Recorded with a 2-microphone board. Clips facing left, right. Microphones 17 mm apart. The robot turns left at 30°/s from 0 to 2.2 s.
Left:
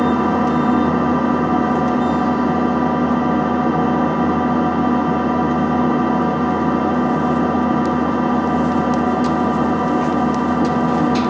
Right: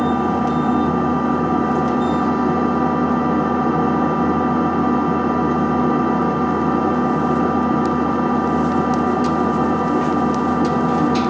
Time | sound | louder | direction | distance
0.0 | an engine running | left 2 dB | 95° left | 2.5 m